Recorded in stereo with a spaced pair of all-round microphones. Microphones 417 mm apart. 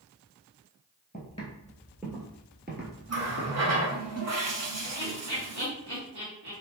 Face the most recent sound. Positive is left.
turn(degrees=-65)  # may be behind; listen again after turning